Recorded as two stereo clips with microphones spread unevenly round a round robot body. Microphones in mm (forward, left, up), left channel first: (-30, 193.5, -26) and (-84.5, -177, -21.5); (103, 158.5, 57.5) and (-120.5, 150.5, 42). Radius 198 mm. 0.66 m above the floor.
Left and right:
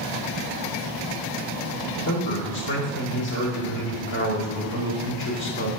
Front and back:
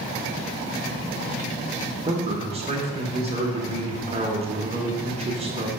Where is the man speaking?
120° left, 1.8 m.